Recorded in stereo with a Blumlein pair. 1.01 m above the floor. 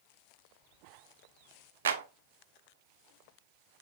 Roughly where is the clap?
Ahead right.